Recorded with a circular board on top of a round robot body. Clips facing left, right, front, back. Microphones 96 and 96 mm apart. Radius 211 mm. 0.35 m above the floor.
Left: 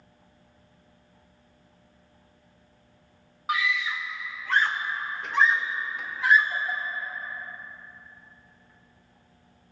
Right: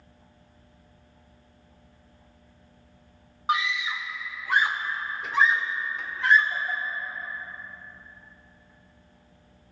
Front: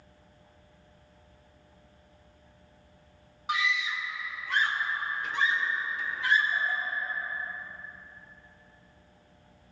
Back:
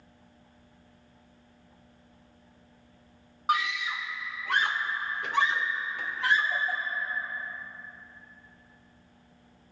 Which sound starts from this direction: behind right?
A scream, at 3.5 s.